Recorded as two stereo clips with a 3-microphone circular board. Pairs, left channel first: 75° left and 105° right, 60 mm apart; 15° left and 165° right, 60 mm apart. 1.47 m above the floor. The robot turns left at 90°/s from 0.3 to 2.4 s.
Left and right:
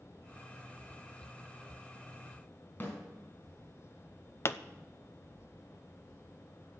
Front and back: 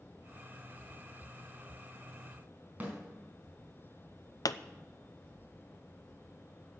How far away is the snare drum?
About 4.5 m.